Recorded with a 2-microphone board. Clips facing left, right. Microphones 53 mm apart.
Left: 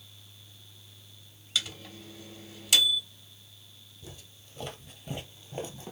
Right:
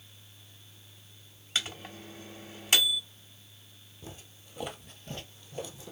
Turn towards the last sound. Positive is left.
turn(degrees=50)  # may be behind; listen again after turning